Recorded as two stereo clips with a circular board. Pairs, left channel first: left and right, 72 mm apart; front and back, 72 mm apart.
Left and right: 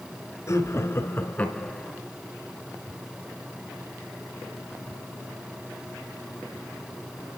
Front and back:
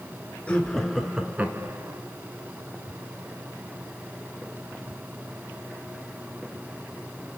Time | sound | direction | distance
0.5 | laughter | 70° left | 1.7 m